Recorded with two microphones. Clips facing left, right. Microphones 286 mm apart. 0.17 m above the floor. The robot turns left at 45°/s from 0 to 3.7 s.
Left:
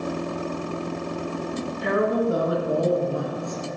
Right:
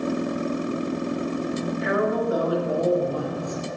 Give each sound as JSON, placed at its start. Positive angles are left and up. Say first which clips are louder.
{"t": 1.8, "sound": "a woman speaking", "louder": "left 3 dB", "azimuth_deg": 65, "distance_m": 1.7}